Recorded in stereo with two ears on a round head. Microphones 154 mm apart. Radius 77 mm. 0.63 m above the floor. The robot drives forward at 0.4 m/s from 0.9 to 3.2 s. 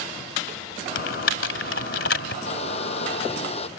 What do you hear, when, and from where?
0.9 s typing on a keyboard: 85° left; by 2.4 s 75° left (ahead or behind)
2.5 s a hair dryer: 40° left (ahead or behind)